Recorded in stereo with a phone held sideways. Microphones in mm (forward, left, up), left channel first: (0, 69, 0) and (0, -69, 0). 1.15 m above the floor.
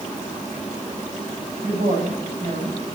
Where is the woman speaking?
70° right (ahead or behind), 6.5 m.